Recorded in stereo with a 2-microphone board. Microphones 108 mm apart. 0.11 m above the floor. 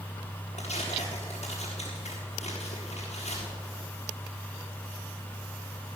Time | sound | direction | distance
0.6 | tearing paper | 90° left | 6 m